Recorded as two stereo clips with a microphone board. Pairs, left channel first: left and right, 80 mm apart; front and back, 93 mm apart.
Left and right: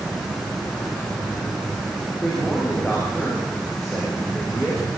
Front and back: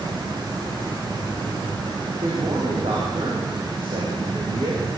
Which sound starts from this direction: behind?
A man speaking, at 2.2 s.